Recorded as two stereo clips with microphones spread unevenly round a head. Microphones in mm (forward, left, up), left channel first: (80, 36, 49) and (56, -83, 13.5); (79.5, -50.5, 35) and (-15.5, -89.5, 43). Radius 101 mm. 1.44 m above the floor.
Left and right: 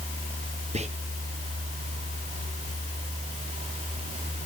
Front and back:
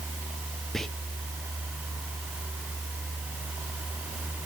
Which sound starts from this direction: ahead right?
Whispering, at 0.7 s.